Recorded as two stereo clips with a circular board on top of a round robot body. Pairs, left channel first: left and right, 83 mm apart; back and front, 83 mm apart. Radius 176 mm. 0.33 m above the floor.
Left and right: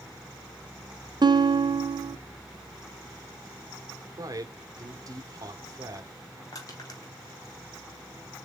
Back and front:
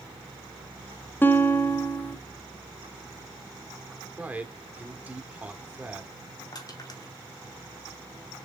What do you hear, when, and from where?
1.2 s a guitar: 115° right, 1.3 m
4.2 s a man speaking: 65° right, 2.0 m
6.5 s crushing: 140° left, 4.5 m